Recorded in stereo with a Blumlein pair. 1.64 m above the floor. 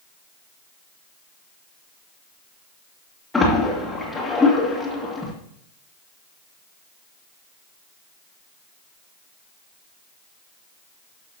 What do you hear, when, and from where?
3.3 s a splash: 10° left, 2 m